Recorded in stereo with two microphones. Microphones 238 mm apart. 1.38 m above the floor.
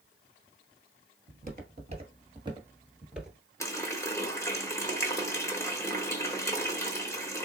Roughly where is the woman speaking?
No woman speaking in this recording.